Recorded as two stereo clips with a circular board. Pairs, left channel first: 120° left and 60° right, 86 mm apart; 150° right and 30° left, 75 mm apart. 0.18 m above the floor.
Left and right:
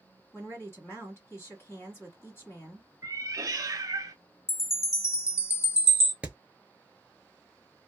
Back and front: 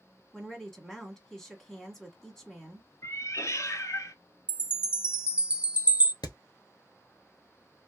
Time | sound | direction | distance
0.3 | a woman speaking | 135° left | 1.3 m
3.0 | a cat meowing | 110° right | 0.6 m
4.5 | a chime | 90° left | 0.6 m
6.2 | hammering | 135° right | 0.7 m